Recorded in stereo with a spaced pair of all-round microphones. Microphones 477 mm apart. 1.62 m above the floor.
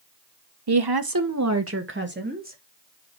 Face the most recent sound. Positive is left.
turn(degrees=-15)  # may be behind; listen again after turning